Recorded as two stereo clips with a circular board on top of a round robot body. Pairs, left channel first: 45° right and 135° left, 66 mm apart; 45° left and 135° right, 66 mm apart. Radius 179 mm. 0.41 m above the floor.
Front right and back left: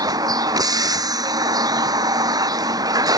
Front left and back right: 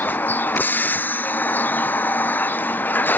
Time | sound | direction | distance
0.0 | a vehicle | 110° left | ?